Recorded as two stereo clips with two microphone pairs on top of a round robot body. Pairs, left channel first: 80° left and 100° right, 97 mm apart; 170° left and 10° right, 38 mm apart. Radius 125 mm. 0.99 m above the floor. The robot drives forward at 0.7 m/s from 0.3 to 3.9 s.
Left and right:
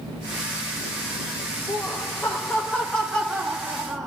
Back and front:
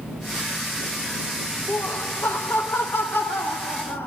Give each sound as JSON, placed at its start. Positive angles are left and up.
{"t": 1.7, "sound": "laughter", "azimuth_deg": 145, "distance_m": 1.1}